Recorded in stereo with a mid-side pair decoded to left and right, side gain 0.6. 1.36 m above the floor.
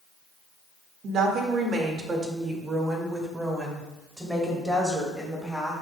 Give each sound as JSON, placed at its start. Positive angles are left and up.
{"t": 1.0, "sound": "a woman speaking", "azimuth_deg": -45, "distance_m": 1.9}